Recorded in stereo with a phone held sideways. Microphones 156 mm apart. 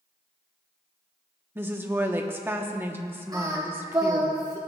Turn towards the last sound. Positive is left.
turn(degrees=-20)  # may be behind; listen again after turning